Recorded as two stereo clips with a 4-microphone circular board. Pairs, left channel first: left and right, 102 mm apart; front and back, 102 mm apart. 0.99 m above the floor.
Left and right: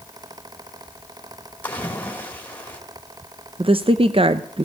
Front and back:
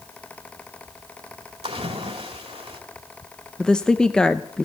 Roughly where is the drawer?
I don't hear a drawer.